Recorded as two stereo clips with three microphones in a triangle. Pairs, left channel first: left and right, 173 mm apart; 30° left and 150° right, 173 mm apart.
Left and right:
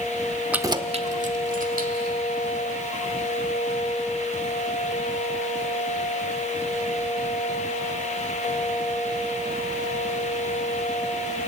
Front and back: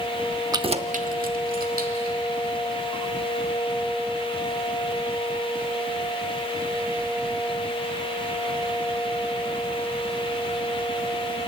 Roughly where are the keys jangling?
Behind.